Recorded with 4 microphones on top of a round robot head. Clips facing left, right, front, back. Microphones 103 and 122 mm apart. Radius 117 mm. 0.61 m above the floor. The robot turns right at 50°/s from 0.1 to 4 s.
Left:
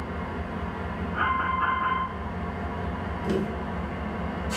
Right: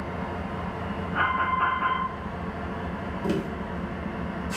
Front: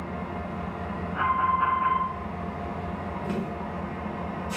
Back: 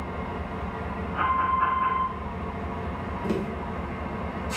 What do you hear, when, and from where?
0.0 s an engine running: 120° right, 1.7 m; by 4.6 s 75° left, 1.7 m
1.1 s an alarm: 105° right, 1.1 m; by 2.1 s 60° right, 1.1 m
3.2 s tapping: 130° right, 0.9 m; by 3.5 s 120° right, 0.9 m